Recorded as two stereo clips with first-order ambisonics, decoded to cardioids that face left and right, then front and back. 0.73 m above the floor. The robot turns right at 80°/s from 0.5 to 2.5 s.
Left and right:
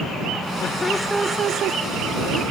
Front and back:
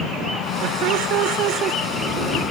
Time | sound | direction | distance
0.6 | laughter | 145° left | ?